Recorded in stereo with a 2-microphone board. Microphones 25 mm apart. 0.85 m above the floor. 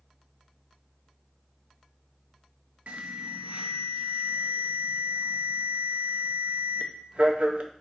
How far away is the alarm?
About 0.5 m.